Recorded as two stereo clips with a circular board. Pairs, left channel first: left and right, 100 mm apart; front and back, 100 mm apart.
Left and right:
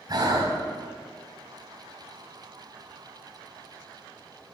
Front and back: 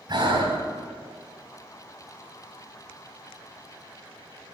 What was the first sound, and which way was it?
Breathing, 135° right.